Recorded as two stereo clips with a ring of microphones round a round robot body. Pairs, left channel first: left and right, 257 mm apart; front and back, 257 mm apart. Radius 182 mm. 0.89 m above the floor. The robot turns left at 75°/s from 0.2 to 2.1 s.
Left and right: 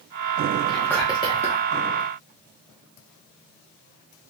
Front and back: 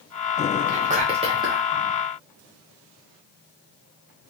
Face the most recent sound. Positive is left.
turn(degrees=75)